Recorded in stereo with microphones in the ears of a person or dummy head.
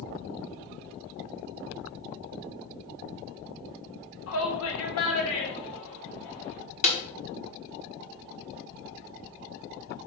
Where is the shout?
85° left, 1.4 m; by 6.6 s 60° left (ahead or behind), 4.5 m.